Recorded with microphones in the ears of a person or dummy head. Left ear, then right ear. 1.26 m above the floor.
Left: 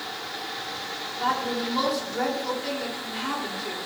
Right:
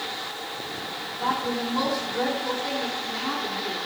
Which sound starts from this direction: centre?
A woman speaking, at 1.2 s.